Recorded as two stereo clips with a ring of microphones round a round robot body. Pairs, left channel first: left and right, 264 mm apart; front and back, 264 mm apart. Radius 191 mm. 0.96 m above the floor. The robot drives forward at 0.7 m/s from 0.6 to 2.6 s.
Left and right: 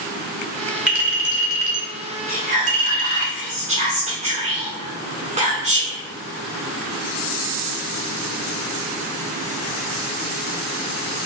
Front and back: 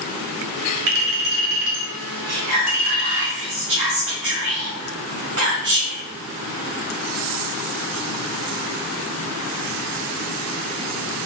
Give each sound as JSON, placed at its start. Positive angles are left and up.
{"t": 0.9, "sound": "a clink", "azimuth_deg": -175, "distance_m": 1.6}
{"t": 2.3, "sound": "whispering", "azimuth_deg": -150, "distance_m": 0.7}